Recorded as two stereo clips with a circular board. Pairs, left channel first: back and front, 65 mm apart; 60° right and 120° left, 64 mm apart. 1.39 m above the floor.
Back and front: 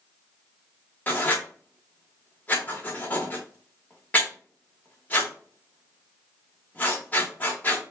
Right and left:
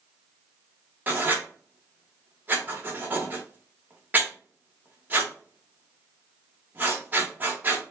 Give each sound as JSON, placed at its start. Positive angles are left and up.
{"t": 1.1, "sound": "writing", "azimuth_deg": 145, "distance_m": 1.1}